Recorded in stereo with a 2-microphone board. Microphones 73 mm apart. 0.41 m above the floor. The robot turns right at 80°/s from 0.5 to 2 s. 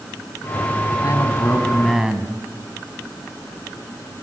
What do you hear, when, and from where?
1.0 s a man speaking: 110° left, 3 m; by 2.3 s 170° right, 3 m